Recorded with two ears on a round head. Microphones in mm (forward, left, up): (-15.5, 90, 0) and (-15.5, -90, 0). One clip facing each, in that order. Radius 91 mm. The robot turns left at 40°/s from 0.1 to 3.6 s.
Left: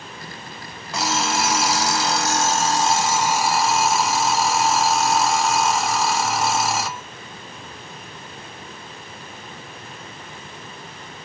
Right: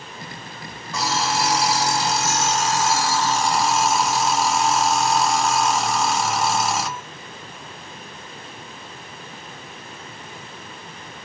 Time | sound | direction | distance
0.9 | an alarm clock | 110° left | 1.7 m